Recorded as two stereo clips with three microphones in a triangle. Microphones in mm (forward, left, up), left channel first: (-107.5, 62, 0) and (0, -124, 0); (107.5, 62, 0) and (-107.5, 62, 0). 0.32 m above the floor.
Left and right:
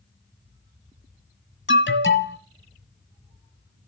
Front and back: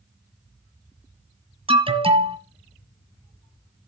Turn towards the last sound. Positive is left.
turn(degrees=120)